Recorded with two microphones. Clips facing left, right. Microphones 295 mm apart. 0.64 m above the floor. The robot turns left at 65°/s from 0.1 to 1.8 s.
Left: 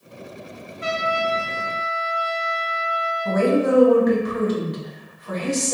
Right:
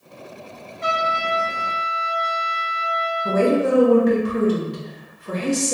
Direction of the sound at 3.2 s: 35° right (ahead or behind).